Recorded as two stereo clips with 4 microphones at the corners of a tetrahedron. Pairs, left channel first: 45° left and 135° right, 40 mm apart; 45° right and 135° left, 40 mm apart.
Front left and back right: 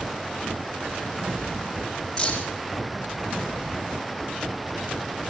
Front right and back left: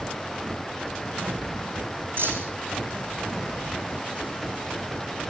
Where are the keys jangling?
115° left, 4.5 m.